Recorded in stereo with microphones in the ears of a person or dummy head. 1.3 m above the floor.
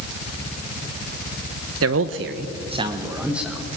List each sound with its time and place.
1.8 s a man speaking: 75° right (ahead or behind), 1.3 m; by 3.7 s centre (ahead or behind), 2 m